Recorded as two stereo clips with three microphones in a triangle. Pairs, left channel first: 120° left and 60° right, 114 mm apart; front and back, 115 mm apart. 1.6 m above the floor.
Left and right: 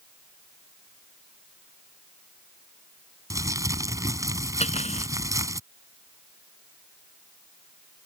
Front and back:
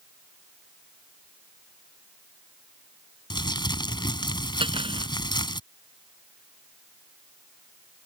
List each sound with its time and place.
3.3 s crumpling: 15° right
4.6 s cutlery clinking: 135° left